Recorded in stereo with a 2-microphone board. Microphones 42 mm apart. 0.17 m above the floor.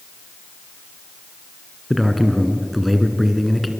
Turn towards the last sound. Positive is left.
turn(degrees=0)  # may be behind; listen again after turning